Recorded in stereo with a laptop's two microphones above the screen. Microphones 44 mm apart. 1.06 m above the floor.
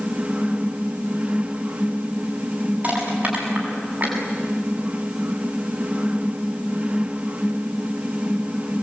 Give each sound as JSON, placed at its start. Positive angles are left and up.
{"t": 0.0, "sound": "a fan", "side_deg": -30, "distance_m": 1.0}
{"t": 2.8, "sound": "crushing", "side_deg": -40, "distance_m": 8.0}